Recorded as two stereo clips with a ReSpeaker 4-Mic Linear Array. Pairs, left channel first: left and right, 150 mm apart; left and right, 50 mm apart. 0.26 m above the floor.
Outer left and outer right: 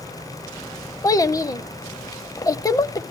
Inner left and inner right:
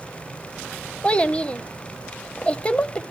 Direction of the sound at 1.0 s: 25° left (ahead or behind).